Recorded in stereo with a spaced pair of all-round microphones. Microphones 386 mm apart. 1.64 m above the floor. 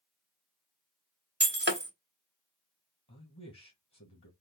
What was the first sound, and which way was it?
Breaking glass, 25° right (ahead or behind).